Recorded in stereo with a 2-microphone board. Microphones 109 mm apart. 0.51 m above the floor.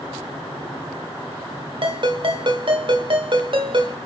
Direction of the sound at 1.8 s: 50° right (ahead or behind).